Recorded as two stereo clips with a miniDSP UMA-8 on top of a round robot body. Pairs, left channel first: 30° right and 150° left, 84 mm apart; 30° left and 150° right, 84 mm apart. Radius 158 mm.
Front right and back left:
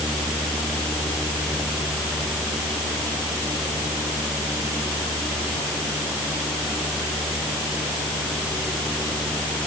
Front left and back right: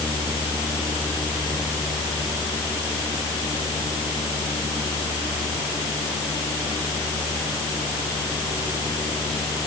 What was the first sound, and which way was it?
Only background noise.